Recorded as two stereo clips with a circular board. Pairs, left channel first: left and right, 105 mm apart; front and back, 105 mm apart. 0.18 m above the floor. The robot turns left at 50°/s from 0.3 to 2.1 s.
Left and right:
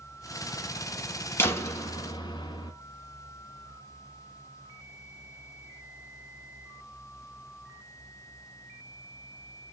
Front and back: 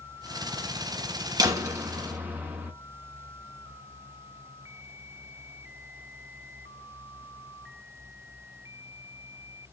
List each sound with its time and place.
1.4 s a door slam: 150° left, 1.3 m; by 2.7 s 115° left, 1.3 m